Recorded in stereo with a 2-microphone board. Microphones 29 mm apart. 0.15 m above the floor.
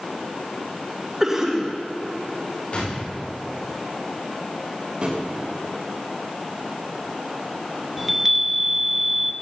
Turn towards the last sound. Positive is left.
turn(degrees=-5)  # may be behind; listen again after turning